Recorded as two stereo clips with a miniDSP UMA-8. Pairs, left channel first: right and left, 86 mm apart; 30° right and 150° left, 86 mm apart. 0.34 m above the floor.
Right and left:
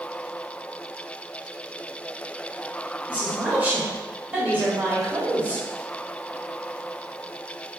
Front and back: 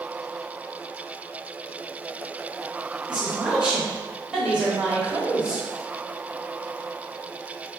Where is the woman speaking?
105° left, 1.4 m.